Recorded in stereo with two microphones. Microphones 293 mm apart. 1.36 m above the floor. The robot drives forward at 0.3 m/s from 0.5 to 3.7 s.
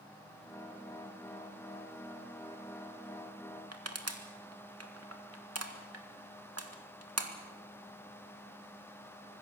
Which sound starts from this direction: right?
Crushing, at 3.7 s.